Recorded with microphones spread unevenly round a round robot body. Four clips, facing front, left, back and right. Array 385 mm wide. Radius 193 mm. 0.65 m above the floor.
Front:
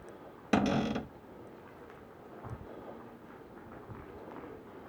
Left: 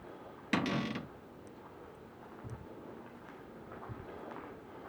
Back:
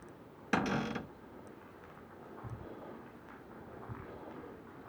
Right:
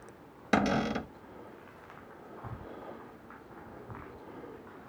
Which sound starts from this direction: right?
A cupboard door, at 0.5 s.